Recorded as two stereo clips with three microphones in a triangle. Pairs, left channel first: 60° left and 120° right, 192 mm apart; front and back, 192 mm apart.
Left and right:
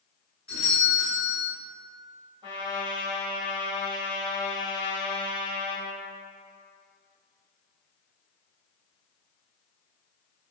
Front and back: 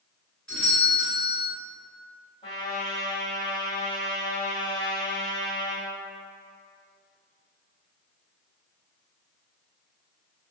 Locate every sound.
0.5 s a doorbell: 75° right, 1.5 m
2.4 s a trumpet: 55° right, 1.5 m